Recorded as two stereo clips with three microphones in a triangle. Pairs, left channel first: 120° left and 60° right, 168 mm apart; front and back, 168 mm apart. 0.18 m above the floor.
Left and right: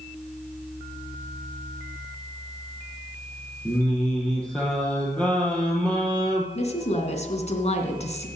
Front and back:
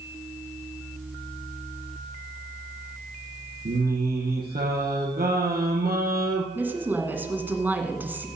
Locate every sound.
3.6 s singing: 155° right, 3 m
6.5 s a woman speaking: 105° left, 1.8 m